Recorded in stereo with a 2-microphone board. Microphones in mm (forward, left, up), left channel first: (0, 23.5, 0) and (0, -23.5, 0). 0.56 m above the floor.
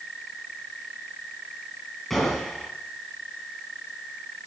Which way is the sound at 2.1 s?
5° left (ahead or behind).